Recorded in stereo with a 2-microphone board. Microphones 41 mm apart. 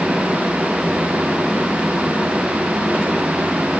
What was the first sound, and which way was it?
Only background noise.